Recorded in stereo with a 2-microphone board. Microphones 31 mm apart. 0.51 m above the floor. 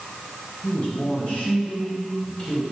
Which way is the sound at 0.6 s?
55° left (ahead or behind).